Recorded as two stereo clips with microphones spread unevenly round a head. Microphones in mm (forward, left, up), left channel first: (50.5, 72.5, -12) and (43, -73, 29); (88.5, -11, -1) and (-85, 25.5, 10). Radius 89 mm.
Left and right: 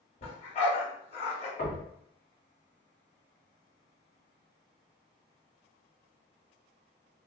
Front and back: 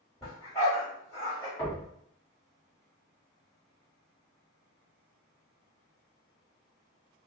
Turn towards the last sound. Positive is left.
turn(degrees=65)